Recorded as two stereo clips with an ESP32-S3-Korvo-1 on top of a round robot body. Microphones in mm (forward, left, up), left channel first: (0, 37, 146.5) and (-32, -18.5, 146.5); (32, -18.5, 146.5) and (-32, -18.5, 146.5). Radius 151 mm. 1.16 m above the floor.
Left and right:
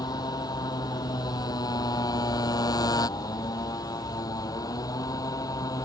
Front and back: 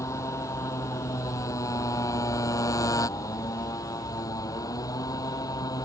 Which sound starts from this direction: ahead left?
A motorcycle, at 0.0 s.